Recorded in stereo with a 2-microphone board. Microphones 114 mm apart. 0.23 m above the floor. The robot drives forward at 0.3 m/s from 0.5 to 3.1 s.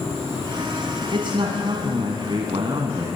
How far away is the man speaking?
About 1.8 m.